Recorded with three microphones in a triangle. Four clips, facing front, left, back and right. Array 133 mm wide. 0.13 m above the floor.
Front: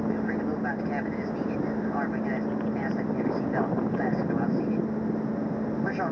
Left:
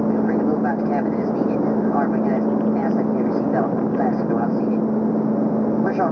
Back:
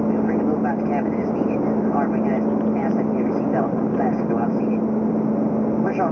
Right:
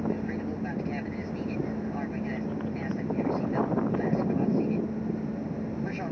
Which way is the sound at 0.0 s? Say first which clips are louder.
Left 12 dB, back 8 dB; 125° left.